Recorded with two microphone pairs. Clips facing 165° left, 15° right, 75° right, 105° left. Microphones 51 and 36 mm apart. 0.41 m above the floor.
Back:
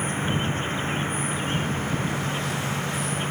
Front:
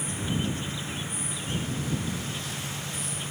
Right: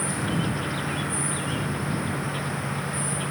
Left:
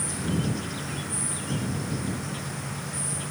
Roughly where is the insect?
Behind right.